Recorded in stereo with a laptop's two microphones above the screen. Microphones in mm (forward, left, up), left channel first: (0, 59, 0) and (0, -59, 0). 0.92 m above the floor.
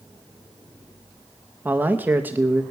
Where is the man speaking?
15° right (ahead or behind), 0.7 m.